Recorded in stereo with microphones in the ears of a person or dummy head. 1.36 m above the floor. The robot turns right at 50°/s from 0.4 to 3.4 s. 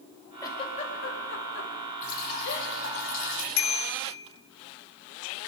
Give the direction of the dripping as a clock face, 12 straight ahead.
11 o'clock.